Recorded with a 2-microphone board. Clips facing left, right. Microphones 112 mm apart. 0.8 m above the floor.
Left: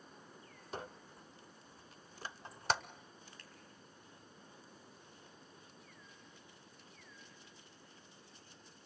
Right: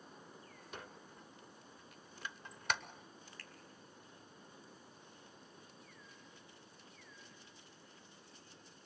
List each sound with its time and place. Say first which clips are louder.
0.7 s a squeak: left 6 dB; 35° left (ahead or behind), 0.6 m
3.4 s a finger snap: right 2 dB; 20° left (ahead or behind), 5 m